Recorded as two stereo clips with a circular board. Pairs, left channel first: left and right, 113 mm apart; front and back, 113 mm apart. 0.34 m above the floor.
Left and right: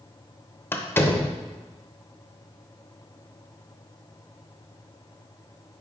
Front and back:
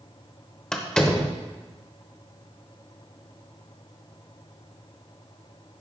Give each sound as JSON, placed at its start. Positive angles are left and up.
{"t": 0.7, "sound": "a door slam", "azimuth_deg": 75, "distance_m": 0.8}